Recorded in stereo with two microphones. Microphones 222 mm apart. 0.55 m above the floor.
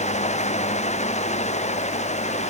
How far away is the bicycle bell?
No bicycle bell in this recording.